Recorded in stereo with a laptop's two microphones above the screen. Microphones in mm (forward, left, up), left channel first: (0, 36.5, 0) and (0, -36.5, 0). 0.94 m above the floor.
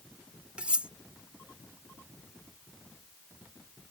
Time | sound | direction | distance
0.6 | cutlery clinking | 15° right (ahead or behind) | ?